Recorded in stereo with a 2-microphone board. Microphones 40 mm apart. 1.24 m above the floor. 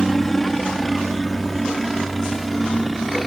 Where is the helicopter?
5° left (ahead or behind); by 3.3 s centre (ahead or behind).